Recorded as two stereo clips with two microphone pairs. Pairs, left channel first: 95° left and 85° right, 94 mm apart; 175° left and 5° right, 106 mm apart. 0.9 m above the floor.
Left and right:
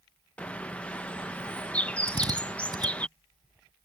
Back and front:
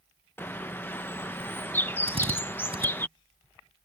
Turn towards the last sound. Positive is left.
turn(degrees=-40)